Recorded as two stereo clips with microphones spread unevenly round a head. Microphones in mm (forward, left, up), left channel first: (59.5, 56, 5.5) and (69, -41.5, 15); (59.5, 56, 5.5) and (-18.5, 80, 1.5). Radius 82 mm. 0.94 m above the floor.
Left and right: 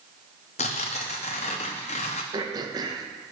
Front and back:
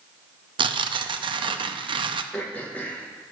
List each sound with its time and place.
0.6 s tearing paper: 140° left, 0.5 m
2.3 s throat clearing: 85° right, 0.8 m